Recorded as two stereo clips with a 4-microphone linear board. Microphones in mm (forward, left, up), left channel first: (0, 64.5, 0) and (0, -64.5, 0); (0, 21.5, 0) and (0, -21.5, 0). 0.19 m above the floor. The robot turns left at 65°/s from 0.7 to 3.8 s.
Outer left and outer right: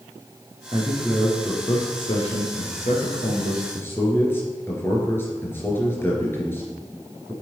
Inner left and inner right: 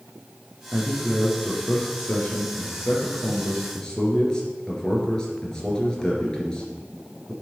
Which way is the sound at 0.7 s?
35° right (ahead or behind).